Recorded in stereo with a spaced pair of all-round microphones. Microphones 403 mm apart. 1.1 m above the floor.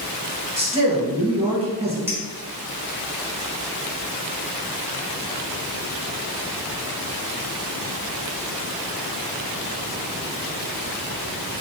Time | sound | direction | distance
0.6 | a man speaking | 15° right (ahead or behind) | 1.1 m
2.1 | a clink | 5° right (ahead or behind) | 1.3 m